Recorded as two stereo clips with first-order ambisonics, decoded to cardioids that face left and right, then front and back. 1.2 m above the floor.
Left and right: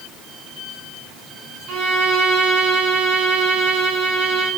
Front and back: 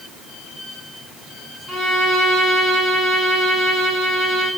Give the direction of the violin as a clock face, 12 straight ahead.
3 o'clock.